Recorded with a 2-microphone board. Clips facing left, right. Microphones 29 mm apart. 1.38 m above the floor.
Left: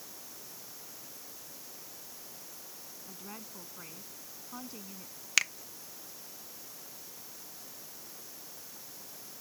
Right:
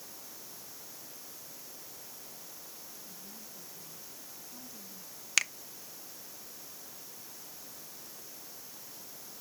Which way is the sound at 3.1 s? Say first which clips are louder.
Left 4 dB; 65° left (ahead or behind).